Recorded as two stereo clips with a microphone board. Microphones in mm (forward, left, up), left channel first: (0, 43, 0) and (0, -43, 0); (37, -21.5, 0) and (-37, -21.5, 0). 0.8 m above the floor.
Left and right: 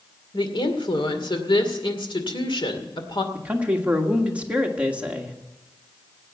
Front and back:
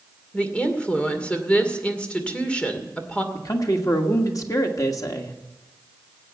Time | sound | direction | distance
0.3 | a woman speaking | 70° left | 2 m
3.3 | a man speaking | 20° right | 1.6 m